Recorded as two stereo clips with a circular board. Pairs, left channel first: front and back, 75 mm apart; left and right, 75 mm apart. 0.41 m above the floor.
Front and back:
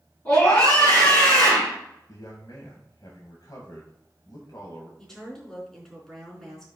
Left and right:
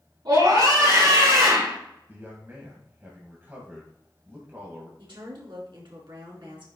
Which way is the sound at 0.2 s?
60° right.